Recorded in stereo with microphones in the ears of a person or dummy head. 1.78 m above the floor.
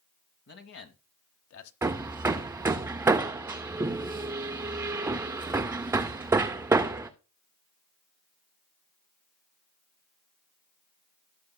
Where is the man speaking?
55° left (ahead or behind), 1.4 m; by 1.7 s 75° left (ahead or behind), 1.2 m.